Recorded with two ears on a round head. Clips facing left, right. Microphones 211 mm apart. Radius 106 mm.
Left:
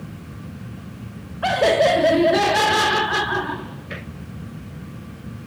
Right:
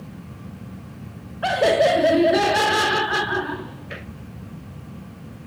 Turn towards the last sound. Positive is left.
turn(degrees=-5)  # may be behind; listen again after turning